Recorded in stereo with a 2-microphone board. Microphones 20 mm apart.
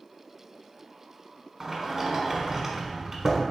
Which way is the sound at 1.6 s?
20° right (ahead or behind).